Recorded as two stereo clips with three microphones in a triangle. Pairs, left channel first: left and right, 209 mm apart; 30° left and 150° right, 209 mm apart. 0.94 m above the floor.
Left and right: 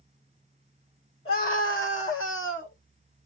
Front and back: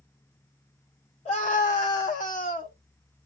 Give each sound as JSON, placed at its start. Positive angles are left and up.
{"t": 1.2, "sound": "a scream", "azimuth_deg": 85, "distance_m": 2.5}